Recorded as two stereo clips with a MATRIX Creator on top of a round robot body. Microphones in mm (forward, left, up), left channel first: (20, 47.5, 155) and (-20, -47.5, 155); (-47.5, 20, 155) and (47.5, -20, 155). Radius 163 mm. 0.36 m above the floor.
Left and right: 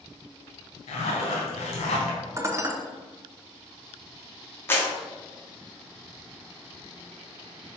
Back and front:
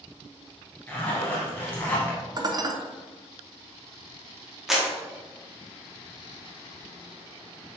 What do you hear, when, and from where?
0.9 s a zipper: 85° left, 0.5 m
2.4 s dishes clattering: 60° right, 0.6 m
4.7 s a clap: 60° left, 1.1 m